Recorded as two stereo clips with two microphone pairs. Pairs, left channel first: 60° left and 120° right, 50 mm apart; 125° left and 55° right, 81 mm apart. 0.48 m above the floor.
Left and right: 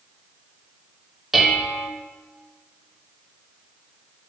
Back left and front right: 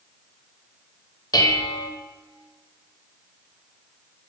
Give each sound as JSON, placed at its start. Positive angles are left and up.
{"t": 1.3, "sound": "dishes clattering", "azimuth_deg": 155, "distance_m": 1.1}